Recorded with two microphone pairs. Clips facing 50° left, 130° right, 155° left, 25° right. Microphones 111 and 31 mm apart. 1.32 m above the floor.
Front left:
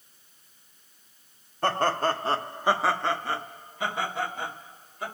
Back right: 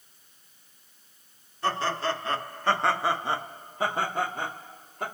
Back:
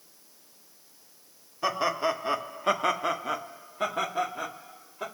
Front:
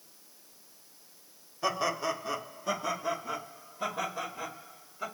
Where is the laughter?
80° left, 0.8 m; by 5.0 s 165° right, 1.3 m.